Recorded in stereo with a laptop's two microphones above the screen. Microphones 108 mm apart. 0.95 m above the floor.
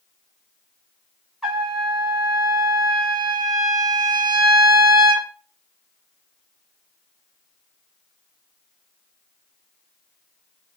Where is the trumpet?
5° right (ahead or behind), 1.9 m.